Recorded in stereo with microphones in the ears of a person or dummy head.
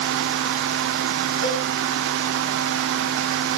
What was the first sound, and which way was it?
A cowbell, 20° right (ahead or behind).